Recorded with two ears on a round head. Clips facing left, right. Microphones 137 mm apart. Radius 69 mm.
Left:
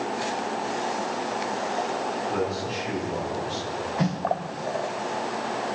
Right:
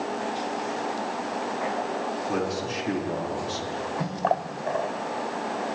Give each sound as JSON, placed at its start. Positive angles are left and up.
{"t": 2.3, "sound": "a man speaking", "side_deg": -70, "distance_m": 4.0}
{"t": 4.0, "sound": "a snare drum", "side_deg": 35, "distance_m": 3.5}